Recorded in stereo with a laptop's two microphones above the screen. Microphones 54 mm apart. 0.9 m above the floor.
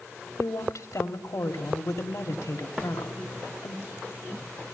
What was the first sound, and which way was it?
A woman speaking, 70° left (ahead or behind).